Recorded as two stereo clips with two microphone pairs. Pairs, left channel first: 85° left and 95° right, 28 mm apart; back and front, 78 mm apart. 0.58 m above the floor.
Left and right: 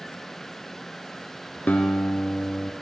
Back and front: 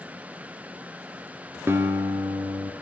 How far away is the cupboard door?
I don't hear a cupboard door.